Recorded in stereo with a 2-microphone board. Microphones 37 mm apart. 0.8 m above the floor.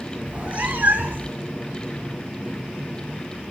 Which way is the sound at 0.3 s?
30° right (ahead or behind).